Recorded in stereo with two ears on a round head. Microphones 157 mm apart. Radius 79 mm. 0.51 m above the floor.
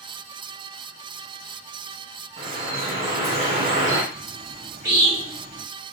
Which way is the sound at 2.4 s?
45° right (ahead or behind).